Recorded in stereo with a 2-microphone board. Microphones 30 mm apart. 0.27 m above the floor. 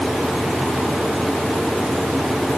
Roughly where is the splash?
I don't hear a splash.